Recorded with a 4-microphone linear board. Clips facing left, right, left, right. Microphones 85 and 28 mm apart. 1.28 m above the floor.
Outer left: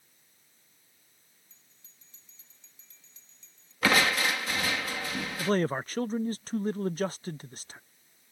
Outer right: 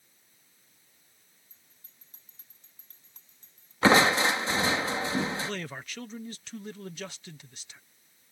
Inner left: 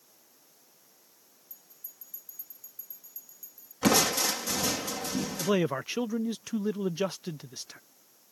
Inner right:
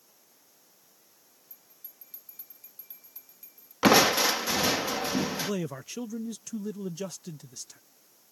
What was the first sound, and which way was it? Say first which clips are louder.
A bell: outer right 1 dB, inner left 4 dB; 50° right (ahead or behind).